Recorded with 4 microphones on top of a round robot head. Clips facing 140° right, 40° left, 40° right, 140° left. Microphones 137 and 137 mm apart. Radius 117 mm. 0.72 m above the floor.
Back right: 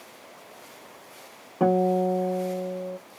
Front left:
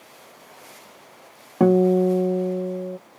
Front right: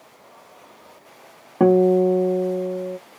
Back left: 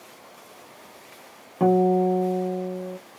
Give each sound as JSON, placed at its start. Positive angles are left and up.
{"t": 1.6, "sound": "a guitar", "azimuth_deg": 5, "distance_m": 0.8}